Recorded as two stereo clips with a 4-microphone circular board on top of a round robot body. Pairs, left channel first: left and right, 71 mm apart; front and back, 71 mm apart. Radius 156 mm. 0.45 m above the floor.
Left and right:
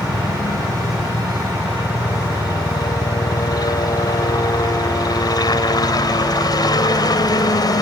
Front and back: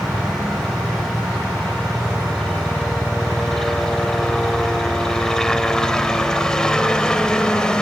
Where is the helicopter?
90° left; by 7.8 s 80° left.